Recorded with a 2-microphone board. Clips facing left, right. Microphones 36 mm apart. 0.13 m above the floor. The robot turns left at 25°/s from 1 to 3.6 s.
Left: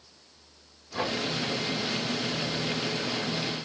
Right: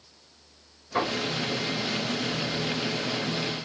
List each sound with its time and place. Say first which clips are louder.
0.9 s knocking: right 3 dB; 50° right (ahead or behind), 7.5 m; by 1.2 s 45° right (ahead or behind), 7.5 m